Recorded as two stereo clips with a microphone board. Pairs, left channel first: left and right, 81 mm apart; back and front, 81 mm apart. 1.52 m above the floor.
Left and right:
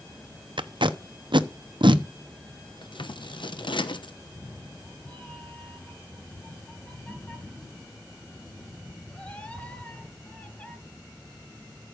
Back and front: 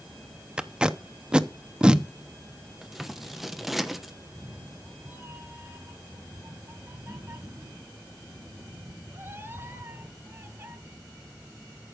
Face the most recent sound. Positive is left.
turn(degrees=30)